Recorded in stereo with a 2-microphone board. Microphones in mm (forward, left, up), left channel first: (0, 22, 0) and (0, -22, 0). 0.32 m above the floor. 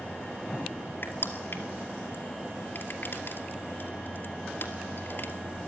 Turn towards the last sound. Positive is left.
turn(degrees=55)  # may be behind; listen again after turning